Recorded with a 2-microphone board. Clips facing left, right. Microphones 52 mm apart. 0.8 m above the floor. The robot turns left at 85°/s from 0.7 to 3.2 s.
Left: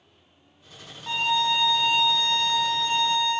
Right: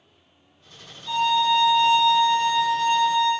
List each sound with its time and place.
1.1 s a violin: 65° left, 1.6 m; by 3.3 s 115° right, 1.6 m